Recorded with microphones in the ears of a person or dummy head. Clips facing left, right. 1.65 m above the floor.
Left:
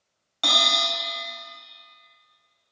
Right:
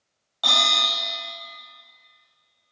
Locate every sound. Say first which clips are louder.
0.4 s a bell: left 1 dB; 25° left (ahead or behind), 2 m